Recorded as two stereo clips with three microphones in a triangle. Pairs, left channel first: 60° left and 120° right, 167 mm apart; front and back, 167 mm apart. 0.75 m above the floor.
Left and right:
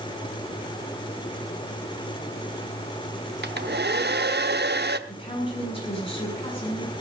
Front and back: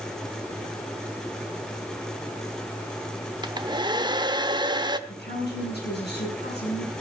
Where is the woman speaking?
5° left, 8.5 m.